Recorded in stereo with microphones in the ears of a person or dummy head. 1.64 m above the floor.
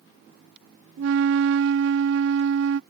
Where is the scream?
I don't hear a scream.